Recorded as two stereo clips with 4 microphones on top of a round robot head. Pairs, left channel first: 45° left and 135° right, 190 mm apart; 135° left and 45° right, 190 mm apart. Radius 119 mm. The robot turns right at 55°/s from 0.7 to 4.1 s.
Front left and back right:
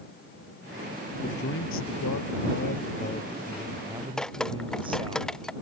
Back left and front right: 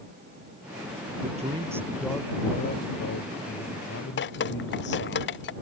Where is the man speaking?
5° left; by 5.2 s 160° left.